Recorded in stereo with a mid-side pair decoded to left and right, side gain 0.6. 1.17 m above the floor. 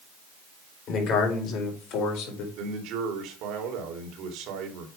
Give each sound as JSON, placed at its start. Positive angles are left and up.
{"t": 0.9, "sound": "a man speaking", "azimuth_deg": 55, "distance_m": 4.5}
{"t": 2.6, "sound": "a man speaking", "azimuth_deg": -65, "distance_m": 2.5}